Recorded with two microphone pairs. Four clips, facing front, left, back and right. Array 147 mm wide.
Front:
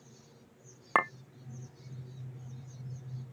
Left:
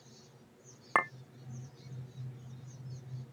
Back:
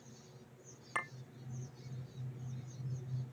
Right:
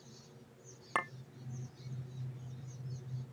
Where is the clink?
25° left.